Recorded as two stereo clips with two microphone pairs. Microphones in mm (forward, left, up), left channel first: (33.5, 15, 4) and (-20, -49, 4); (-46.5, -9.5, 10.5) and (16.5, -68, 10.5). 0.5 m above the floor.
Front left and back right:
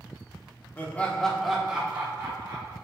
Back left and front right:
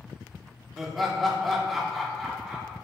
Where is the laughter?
40° left, 0.9 m; by 2.8 s 135° right, 1.1 m.